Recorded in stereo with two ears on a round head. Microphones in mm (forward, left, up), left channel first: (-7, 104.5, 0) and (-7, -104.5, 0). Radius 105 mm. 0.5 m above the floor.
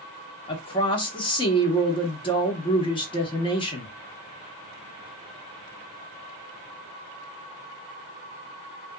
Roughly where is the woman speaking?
Left.